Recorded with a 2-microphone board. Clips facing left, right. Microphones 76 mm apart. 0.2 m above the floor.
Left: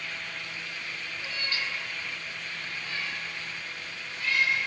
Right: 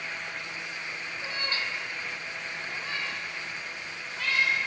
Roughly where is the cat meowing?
Right.